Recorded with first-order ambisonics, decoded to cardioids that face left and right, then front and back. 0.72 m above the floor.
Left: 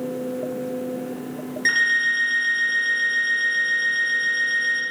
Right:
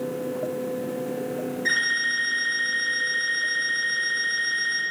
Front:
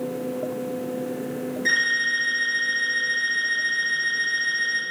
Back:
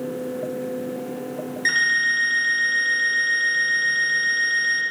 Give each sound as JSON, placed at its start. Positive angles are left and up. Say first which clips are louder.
{"t": 1.6, "sound": "an alarm clock", "louder": "left 5 dB, back 2 dB", "azimuth_deg": 130, "distance_m": 1.6}